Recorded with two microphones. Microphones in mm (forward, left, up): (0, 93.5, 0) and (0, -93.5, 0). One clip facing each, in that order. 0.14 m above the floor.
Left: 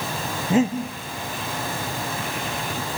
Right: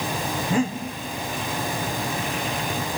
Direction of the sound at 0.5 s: 20° left (ahead or behind).